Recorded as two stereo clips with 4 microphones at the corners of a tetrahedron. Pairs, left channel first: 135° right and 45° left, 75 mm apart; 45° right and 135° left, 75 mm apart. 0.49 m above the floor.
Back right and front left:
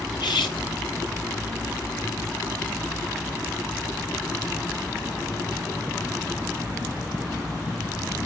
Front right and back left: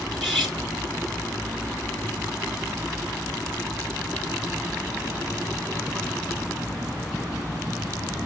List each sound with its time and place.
0.1 s cutlery clinking: 135° right, 3.5 m